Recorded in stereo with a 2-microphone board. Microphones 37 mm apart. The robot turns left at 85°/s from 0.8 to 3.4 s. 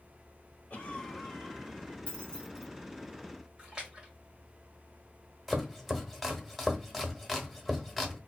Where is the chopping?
Centre (ahead or behind), 0.8 m.